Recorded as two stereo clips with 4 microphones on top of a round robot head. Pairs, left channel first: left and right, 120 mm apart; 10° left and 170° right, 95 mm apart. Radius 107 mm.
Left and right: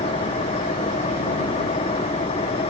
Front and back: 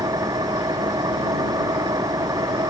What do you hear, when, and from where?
0.0 s an engine running: 140° left